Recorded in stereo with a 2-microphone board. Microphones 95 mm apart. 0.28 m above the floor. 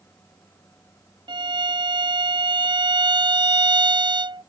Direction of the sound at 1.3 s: 55° right (ahead or behind).